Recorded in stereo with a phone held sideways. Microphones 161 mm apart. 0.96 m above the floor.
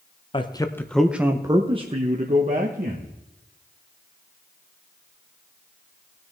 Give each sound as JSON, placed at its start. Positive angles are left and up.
{"t": 0.3, "sound": "a man speaking", "side_deg": 35, "distance_m": 0.8}